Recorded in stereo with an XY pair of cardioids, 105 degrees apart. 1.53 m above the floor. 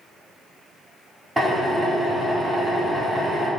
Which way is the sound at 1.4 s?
10° right.